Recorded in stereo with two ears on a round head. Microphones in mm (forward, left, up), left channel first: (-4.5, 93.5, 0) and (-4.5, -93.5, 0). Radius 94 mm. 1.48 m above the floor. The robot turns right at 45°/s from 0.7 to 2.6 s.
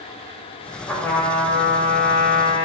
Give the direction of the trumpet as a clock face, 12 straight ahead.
12 o'clock.